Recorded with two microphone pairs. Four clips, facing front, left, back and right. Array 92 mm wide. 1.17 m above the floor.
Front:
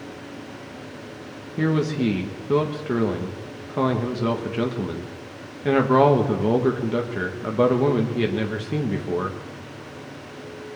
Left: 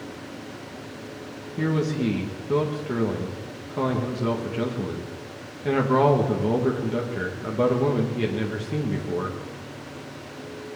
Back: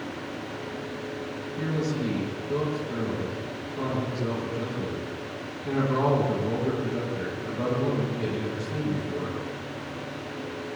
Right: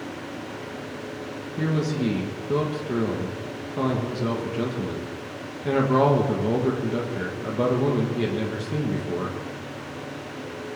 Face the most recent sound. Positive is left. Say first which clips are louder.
# left 1 dB, front 7 dB
turn(degrees=5)